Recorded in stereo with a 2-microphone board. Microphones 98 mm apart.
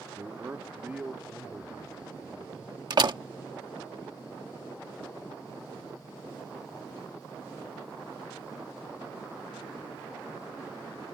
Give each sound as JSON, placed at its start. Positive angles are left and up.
{"t": 0.2, "sound": "a man speaking", "side_deg": -30}
{"t": 2.9, "sound": "a door slam", "side_deg": -55}